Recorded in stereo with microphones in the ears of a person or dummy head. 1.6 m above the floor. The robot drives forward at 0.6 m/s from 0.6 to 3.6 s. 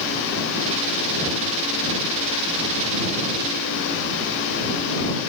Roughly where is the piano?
I don't hear a piano.